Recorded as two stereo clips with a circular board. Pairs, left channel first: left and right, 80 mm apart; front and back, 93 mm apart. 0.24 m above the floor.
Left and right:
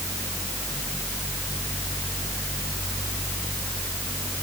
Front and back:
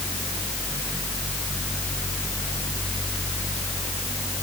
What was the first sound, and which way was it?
Only background noise.